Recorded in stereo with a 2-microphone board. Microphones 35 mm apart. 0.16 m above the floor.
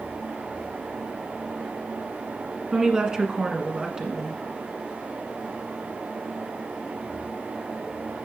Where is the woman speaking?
25° right (ahead or behind), 1.3 m.